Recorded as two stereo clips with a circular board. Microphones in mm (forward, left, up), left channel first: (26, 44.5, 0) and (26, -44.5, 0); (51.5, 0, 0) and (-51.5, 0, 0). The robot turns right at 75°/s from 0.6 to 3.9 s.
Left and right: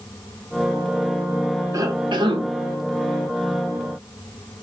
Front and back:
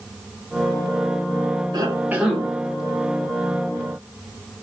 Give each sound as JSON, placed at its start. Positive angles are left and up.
{"t": 1.7, "sound": "a cough", "azimuth_deg": -135, "distance_m": 0.8}